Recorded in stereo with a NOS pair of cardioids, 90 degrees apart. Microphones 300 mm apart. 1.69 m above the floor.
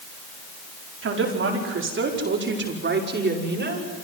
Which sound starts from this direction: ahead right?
A woman speaking, at 1.0 s.